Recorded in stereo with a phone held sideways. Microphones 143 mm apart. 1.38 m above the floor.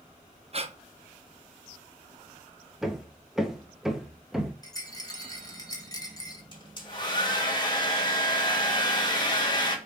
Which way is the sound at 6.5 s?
30° left (ahead or behind).